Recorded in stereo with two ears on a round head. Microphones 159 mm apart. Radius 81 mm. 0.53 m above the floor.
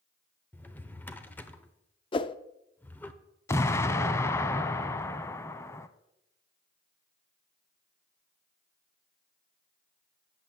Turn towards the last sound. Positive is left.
turn(degrees=15)  # may be behind; listen again after turning